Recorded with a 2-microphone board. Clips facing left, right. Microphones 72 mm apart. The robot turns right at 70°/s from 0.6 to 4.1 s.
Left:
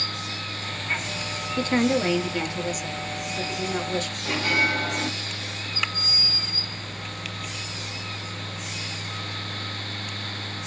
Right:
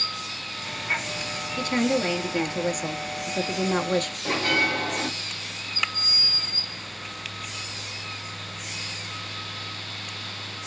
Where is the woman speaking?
135° left, 0.8 m; by 4.2 s 45° right, 0.8 m.